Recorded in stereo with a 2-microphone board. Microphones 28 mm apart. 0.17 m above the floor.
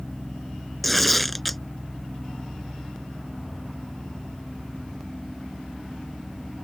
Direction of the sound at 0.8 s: Centre (ahead or behind).